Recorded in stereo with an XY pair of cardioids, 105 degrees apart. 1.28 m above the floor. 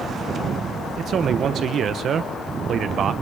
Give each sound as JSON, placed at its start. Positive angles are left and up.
{"t": 1.0, "sound": "a man speaking", "azimuth_deg": -60, "distance_m": 1.0}